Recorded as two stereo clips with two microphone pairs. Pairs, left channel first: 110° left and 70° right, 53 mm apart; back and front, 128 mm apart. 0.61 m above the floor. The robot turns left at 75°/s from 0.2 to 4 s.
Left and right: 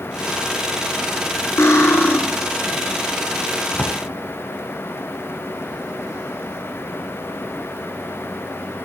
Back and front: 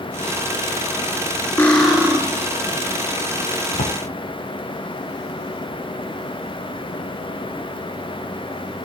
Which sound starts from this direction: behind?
A drawer, at 3.7 s.